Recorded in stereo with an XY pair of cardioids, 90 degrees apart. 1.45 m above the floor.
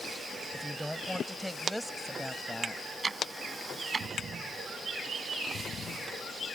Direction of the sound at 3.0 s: 35° right.